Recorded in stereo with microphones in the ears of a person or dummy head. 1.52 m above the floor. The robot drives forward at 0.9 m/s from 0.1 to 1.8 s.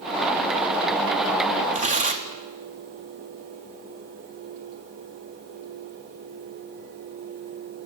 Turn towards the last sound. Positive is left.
turn(degrees=-40)  # may be behind; listen again after turning